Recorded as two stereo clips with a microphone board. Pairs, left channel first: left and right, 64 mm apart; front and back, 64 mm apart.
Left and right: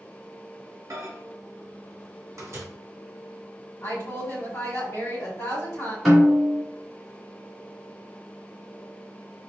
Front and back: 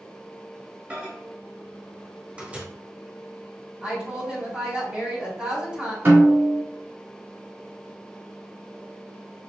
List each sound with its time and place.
0.9 s a microwave: 120° right, 0.9 m
3.8 s a woman speaking: 115° left, 1.6 m
6.0 s a snare drum: 175° left, 1.8 m